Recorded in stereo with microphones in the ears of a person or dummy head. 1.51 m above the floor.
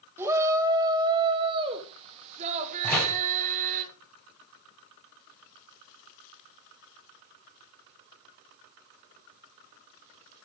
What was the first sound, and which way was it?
A shout, 15° right (ahead or behind).